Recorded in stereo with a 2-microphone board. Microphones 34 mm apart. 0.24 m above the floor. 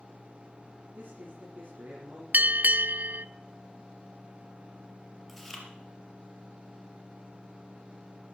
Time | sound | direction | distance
0.9 | a man speaking | 55° right (ahead or behind) | 6 m
2.3 | a bell | 55° right (ahead or behind) | 0.5 m
5.3 | chewing | centre (ahead or behind) | 4 m